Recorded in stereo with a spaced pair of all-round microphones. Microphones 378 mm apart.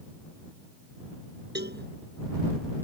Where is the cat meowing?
No cat meowing in this recording.